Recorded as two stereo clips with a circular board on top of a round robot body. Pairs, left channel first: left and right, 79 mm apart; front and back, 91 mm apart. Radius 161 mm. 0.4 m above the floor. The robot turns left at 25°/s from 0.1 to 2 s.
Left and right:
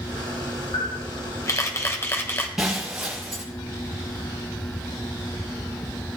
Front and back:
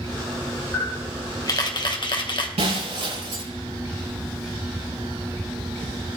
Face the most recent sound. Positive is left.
turn(degrees=-175)